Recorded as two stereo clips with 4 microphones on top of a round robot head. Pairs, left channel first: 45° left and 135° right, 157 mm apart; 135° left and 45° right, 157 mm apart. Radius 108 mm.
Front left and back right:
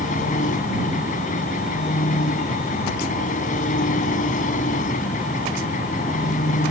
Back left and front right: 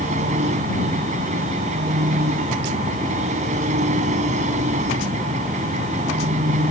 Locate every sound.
0.0 s an engine running: 5° left